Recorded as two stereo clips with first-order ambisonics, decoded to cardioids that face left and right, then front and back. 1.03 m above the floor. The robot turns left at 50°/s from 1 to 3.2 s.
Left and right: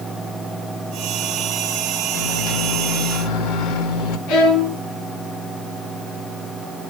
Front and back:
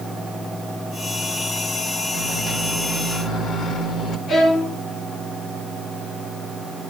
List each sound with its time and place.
2.1 s a microwave: 110° left, 2 m; by 4.2 s 60° left, 2 m
4.3 s a violin: 60° left, 4 m